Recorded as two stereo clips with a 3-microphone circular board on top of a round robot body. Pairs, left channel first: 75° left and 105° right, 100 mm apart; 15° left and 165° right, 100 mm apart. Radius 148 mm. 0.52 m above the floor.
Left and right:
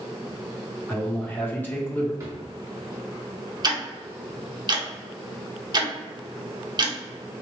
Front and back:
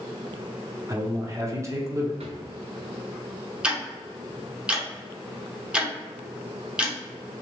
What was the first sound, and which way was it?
A man speaking, 140° left.